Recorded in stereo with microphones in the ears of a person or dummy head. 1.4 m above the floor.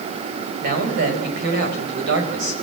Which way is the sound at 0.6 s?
55° right (ahead or behind).